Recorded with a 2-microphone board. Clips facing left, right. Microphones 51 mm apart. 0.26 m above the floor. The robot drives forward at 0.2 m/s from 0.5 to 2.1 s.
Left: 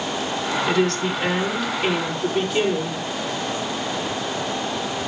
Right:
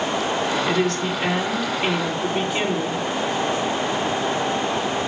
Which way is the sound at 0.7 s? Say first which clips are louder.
Left 1 dB; 20° right (ahead or behind).